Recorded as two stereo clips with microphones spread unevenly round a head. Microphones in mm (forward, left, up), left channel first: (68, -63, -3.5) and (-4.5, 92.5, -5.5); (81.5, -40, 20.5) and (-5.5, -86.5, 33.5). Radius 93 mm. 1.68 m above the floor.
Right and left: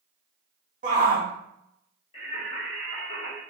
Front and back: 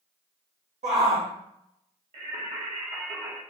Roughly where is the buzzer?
No buzzer in this recording.